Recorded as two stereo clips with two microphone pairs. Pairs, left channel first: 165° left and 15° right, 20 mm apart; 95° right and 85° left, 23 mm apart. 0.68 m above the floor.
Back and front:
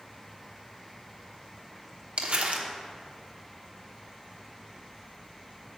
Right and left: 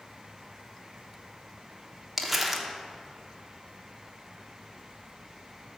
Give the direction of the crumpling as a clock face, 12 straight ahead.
12 o'clock.